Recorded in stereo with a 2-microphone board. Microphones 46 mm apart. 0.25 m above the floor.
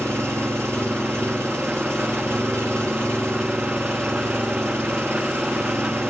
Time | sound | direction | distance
0.0 | an engine running | 75° right (ahead or behind) | 5.5 m